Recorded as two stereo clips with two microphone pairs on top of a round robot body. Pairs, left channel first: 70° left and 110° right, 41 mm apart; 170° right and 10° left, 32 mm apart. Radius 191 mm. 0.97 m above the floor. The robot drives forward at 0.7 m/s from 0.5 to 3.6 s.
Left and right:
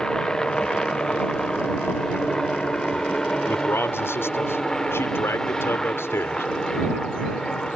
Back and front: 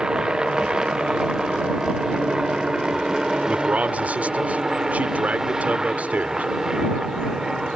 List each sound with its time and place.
0.0 s a helicopter: 35° left; by 7.8 s 45° left
3.5 s a man speaking: 55° left